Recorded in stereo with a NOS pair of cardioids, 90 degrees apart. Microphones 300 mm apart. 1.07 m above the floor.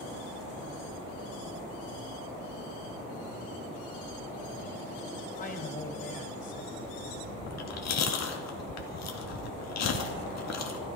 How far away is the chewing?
About 2 m.